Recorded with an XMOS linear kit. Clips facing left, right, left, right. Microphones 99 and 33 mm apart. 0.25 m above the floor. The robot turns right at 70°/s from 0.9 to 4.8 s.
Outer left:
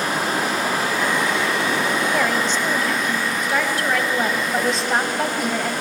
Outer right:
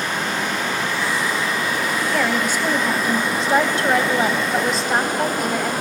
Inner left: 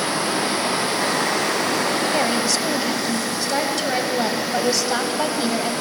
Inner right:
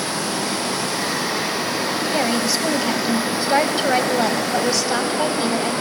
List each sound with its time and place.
0.0 s running water: 40° left, 5.5 m; by 5.8 s 50° right, 5.5 m
2.1 s a woman speaking: centre (ahead or behind), 1.5 m